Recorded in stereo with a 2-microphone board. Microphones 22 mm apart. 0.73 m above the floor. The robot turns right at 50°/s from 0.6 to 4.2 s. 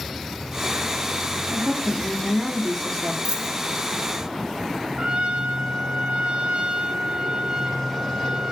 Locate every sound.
1.5 s a woman speaking: 60° right, 1.6 m; by 3.1 s 20° left, 1.6 m
3.2 s a dropped coin: 60° right (ahead or behind), 2.5 m; by 3.5 s 45° right (ahead or behind), 2.5 m
5.0 s a trumpet: 55° right (ahead or behind), 1.2 m